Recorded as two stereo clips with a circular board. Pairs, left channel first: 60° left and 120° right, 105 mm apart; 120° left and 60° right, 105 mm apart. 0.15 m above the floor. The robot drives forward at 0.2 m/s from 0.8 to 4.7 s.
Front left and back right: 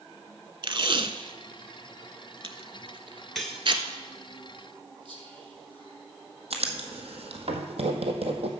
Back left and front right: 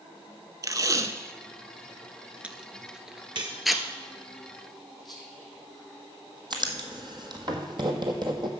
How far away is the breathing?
No breathing in this recording.